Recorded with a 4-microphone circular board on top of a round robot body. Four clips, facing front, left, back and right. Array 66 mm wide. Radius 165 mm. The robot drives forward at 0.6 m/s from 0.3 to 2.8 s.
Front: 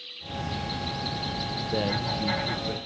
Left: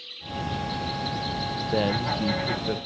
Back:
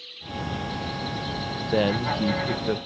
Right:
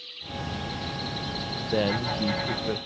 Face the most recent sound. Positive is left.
turn(degrees=180)